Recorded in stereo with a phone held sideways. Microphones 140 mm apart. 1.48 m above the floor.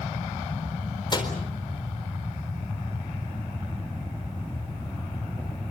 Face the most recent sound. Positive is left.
turn(degrees=35)  # may be behind; listen again after turning